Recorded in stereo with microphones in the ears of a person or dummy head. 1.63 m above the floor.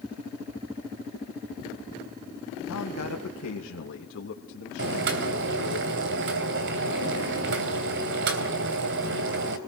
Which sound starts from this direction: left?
A man speaking, at 2.7 s.